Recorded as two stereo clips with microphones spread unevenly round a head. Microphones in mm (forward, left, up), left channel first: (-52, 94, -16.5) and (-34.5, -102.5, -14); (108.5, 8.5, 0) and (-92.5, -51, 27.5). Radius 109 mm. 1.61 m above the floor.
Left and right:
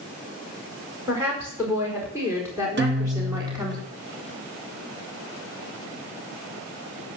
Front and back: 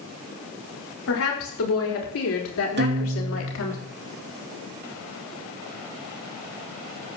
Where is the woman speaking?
5° right, 5.5 m; by 3.8 s 10° right, 3.5 m.